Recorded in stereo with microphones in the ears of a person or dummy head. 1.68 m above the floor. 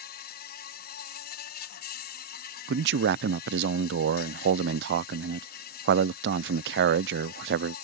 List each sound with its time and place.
0.0 s an insect: 55° left (ahead or behind)
2.7 s a man speaking: 65° right (ahead or behind)